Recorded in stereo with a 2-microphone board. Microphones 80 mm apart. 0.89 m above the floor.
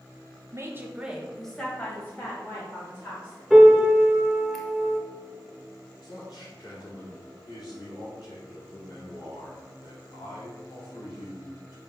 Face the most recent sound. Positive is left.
turn(degrees=55)  # may be behind; listen again after turning